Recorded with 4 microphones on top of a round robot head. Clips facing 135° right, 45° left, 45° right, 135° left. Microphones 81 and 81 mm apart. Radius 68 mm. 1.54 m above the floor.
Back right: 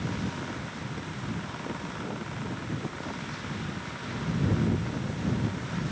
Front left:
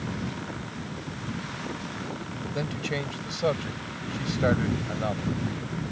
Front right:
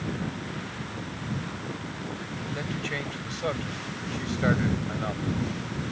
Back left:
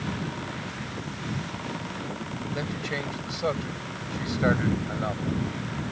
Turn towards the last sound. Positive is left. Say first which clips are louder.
# front left 5 dB, back left 1 dB
turn(degrees=60)